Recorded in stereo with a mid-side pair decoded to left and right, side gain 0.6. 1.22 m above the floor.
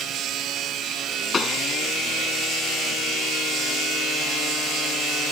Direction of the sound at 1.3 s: 30° left.